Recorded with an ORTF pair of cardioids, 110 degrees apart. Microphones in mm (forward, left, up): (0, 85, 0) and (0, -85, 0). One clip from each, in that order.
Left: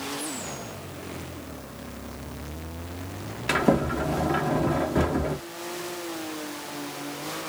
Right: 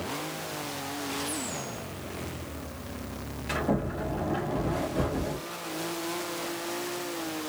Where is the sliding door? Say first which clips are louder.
Left 7 dB; 65° left, 1.0 m.